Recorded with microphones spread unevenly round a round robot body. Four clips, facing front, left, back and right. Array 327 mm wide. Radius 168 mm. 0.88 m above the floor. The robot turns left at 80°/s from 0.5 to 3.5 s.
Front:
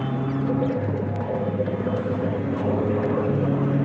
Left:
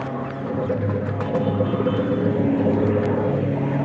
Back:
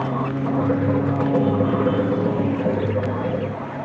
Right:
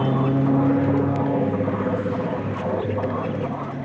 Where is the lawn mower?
90° right; by 3.8 s 30° left.